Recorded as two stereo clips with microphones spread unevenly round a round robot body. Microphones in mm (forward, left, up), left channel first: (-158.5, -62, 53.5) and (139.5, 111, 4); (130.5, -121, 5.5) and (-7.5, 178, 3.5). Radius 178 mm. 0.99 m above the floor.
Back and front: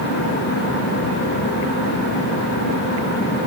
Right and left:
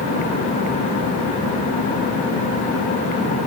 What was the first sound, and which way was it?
Only background noise.